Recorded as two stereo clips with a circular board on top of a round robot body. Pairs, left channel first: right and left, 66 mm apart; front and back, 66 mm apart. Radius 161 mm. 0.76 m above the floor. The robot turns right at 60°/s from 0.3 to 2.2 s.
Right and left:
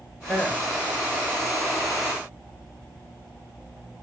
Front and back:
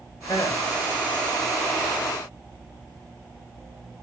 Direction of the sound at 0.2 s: 15° right.